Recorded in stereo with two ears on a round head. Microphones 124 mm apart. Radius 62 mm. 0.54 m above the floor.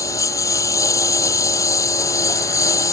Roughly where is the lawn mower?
Left.